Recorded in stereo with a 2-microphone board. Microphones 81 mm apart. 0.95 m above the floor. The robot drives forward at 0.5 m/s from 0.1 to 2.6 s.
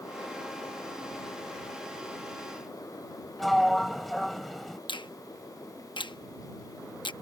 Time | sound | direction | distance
3.4 | a sliding door | centre (ahead or behind) | ?
4.9 | a finger snap | 80° left | ?